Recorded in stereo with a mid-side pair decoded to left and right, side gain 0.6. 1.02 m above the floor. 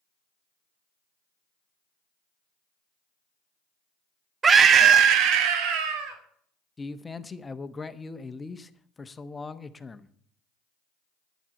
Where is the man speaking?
20° left, 1.0 m.